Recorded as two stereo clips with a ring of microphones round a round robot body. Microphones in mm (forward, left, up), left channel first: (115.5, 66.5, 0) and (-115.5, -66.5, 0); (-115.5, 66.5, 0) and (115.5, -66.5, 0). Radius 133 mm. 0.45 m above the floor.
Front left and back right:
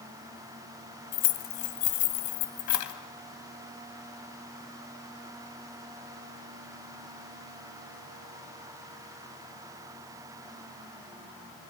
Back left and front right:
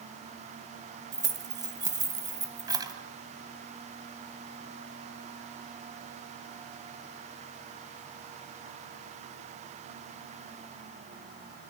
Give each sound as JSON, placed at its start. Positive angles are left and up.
{"t": 1.1, "sound": "keys jangling", "azimuth_deg": 45, "distance_m": 2.5}